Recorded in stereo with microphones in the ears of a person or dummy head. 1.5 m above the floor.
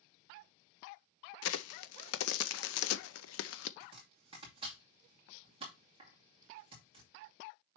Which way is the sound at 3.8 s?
25° right (ahead or behind).